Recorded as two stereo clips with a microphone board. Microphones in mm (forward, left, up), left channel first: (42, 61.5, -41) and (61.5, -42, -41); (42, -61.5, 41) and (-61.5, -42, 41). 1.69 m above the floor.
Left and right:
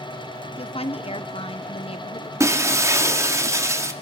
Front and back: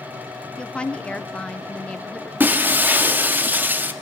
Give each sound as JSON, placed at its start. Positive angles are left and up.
{"t": 0.6, "sound": "a woman speaking", "azimuth_deg": 70, "distance_m": 1.2}
{"t": 2.4, "sound": "breaking glass", "azimuth_deg": -125, "distance_m": 1.4}